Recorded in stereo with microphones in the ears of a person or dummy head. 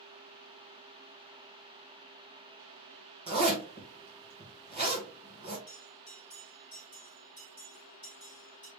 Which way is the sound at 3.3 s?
25° right (ahead or behind).